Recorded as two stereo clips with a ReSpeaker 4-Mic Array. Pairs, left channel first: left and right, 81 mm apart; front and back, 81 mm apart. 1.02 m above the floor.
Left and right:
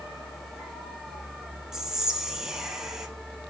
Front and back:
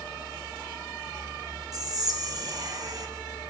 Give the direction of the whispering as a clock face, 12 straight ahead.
6 o'clock.